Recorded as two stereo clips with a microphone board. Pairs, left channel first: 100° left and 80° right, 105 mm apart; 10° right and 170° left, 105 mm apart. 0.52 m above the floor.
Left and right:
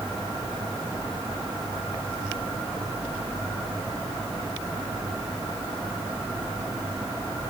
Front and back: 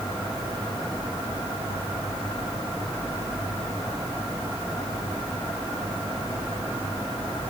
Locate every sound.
Only background noise.